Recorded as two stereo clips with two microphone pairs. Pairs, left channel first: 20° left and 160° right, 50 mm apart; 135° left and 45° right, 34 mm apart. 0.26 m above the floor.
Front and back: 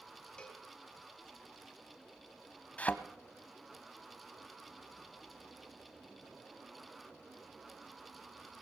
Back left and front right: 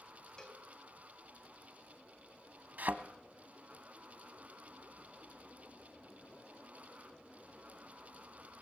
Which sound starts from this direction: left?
A cowbell, at 0.4 s.